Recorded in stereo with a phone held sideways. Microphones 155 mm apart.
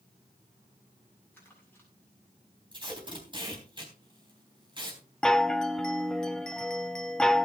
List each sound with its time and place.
1.3 s crumpling: 15° left (ahead or behind), 6.5 m
2.7 s tape being pulled: 30° right (ahead or behind), 3.5 m
5.2 s a chime: 5° left (ahead or behind), 0.5 m